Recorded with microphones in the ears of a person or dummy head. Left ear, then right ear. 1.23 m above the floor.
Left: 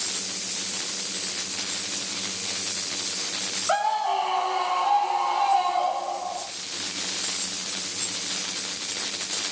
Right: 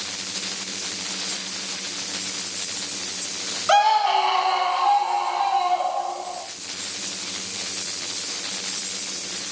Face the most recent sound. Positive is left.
turn(degrees=-10)  # may be behind; listen again after turning